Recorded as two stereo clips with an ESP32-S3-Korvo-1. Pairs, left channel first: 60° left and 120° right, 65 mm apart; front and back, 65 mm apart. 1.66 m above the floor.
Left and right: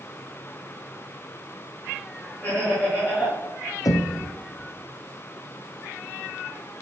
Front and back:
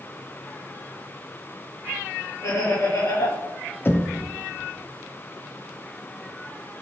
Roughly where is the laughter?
Ahead.